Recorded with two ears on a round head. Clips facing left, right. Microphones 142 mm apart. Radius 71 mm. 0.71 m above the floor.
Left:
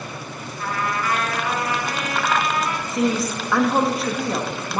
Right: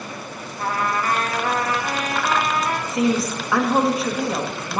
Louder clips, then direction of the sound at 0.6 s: Right 2 dB; 35° right (ahead or behind).